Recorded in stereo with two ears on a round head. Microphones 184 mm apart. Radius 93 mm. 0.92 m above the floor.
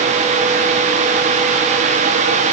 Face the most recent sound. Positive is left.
No sound to turn to.